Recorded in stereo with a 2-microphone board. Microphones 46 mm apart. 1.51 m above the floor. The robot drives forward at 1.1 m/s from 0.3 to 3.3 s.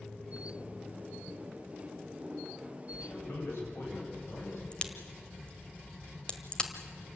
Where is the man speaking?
65° left (ahead or behind), 9 m.